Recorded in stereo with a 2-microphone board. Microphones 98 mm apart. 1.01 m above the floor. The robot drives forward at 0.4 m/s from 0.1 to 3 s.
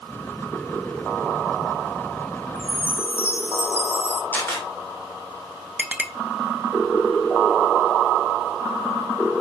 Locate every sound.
2.5 s a chime: 20° left (ahead or behind), 0.9 m; by 4.2 s 25° left (ahead or behind), 0.7 m
4.3 s a camera shutter: 20° left (ahead or behind), 2.5 m
5.8 s a clink: 15° right (ahead or behind), 0.5 m